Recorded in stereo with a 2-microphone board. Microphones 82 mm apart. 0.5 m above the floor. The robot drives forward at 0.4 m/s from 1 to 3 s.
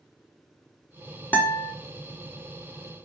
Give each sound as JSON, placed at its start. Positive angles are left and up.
{"t": 1.3, "sound": "a guitar", "side_deg": 20, "distance_m": 0.6}